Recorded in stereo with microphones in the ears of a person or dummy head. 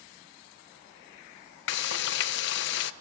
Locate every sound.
1.7 s frying: 60° left (ahead or behind), 1.0 m